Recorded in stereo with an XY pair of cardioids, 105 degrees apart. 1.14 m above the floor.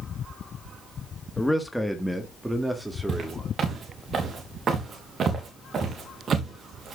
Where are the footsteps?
45° right, 5 m.